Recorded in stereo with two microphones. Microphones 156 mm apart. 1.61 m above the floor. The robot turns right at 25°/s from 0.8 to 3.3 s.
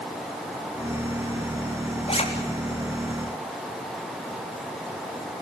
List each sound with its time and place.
2.1 s a zipper: 35° left (ahead or behind), 3.5 m; by 2.2 s 40° left (ahead or behind), 3.5 m